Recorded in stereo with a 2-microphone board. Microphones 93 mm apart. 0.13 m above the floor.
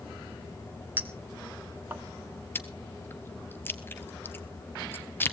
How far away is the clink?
About 1.0 m.